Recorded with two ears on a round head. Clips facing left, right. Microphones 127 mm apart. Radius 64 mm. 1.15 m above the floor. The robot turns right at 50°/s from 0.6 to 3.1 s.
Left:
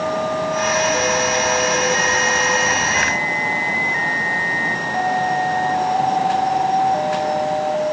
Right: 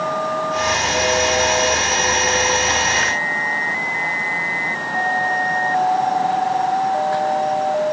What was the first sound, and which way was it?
Only background noise.